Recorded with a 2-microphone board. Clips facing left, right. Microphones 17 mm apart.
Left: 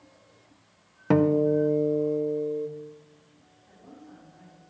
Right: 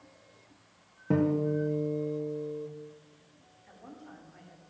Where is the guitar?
55° left (ahead or behind), 0.7 m.